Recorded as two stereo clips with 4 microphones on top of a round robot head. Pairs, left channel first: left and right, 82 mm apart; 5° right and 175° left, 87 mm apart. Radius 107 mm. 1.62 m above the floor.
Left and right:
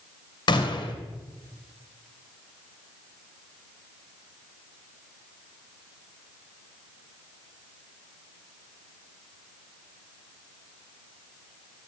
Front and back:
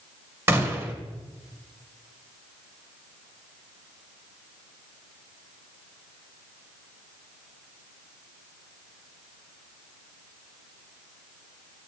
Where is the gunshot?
120° left, 2 m.